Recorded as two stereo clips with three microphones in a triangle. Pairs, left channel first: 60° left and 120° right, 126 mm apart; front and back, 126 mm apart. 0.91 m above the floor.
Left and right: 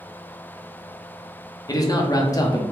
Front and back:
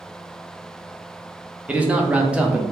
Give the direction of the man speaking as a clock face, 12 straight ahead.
9 o'clock.